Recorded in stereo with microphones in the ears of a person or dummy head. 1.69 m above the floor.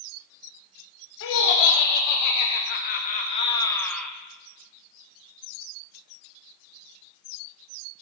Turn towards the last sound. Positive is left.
turn(degrees=0)  # may be behind; listen again after turning